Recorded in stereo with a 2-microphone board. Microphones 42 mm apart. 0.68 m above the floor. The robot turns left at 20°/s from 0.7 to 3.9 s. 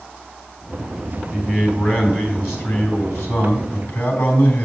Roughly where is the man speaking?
Behind left.